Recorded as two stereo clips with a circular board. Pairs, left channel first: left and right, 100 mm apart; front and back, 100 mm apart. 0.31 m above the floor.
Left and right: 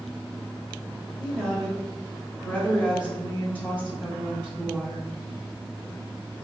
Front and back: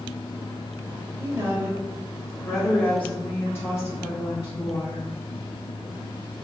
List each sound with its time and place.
1.2 s a woman speaking: 165° left, 1.5 m; by 5.1 s 20° left, 2 m